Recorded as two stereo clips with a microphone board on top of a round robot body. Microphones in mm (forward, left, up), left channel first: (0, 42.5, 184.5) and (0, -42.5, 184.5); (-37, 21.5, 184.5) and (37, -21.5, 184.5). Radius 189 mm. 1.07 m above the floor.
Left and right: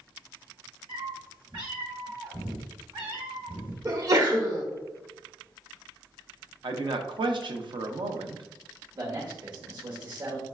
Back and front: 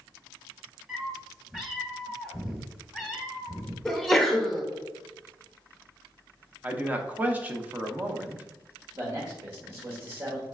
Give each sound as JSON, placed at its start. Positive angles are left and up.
{"t": 0.9, "sound": "a cat meowing", "azimuth_deg": -110, "distance_m": 1.3}
{"t": 3.9, "sound": "a sneeze", "azimuth_deg": -125, "distance_m": 1.0}
{"t": 6.6, "sound": "a man speaking", "azimuth_deg": -100, "distance_m": 0.8}
{"t": 8.9, "sound": "a man speaking", "azimuth_deg": -60, "distance_m": 1.5}